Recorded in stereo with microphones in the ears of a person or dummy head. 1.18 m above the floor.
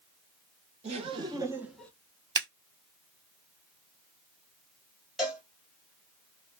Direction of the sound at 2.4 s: 25° right (ahead or behind).